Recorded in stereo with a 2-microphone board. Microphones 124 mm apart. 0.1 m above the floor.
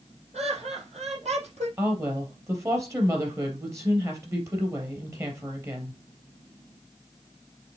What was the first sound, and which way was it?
Laughter, 55° right (ahead or behind).